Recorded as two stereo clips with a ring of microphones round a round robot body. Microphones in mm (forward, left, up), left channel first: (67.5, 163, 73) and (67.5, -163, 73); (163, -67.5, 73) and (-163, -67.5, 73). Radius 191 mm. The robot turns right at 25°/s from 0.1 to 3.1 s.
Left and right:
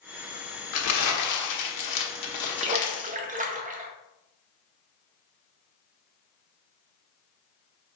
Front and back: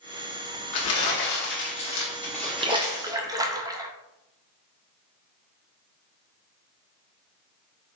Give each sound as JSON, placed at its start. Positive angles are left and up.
{"t": 0.7, "sound": "crumpling", "azimuth_deg": 45, "distance_m": 1.1}
{"t": 2.6, "sound": "a splash", "azimuth_deg": -125, "distance_m": 0.7}